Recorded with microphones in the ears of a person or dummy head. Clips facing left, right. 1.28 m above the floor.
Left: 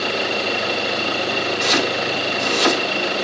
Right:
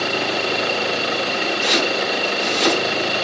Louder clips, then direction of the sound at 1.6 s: Right 1 dB; 65° left (ahead or behind).